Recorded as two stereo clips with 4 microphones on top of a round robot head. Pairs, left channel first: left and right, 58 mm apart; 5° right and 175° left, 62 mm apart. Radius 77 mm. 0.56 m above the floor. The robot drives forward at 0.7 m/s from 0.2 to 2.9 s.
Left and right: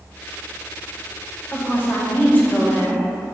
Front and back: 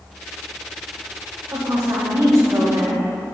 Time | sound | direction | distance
1.5 | a woman speaking | 140° left | 2.5 m